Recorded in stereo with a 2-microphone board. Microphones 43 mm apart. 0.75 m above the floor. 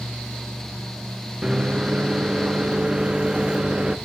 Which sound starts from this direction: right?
A microwave, at 1.4 s.